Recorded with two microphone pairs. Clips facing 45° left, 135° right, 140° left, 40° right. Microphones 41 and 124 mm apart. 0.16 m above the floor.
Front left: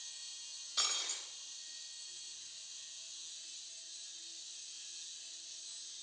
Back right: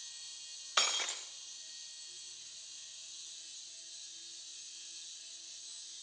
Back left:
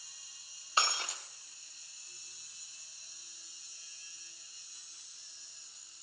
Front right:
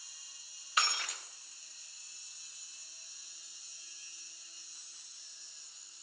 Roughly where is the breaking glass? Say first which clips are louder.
Back right 6 dB, back left 2 dB; behind.